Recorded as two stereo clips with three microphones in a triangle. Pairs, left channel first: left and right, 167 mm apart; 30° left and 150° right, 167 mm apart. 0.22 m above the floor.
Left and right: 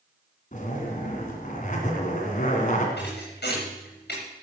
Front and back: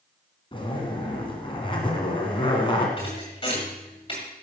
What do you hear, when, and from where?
0.5 s a zipper: 80° left, 2.5 m
3.0 s a thud: 90° left, 6 m